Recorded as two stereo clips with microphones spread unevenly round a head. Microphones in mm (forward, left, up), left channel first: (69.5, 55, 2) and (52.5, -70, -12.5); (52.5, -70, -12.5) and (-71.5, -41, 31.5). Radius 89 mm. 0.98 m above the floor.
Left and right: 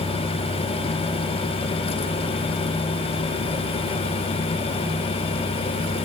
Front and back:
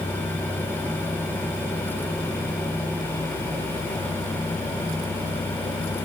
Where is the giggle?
I don't hear a giggle.